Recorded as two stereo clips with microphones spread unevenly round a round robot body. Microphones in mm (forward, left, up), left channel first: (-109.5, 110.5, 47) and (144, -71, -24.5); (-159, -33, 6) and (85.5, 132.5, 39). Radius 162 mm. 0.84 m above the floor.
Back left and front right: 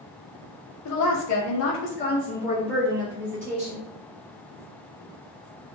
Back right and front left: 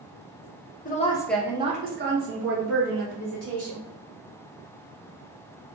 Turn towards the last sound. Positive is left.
turn(degrees=55)